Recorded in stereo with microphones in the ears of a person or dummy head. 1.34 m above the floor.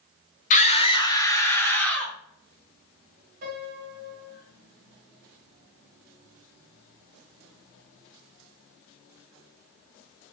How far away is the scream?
About 0.6 m.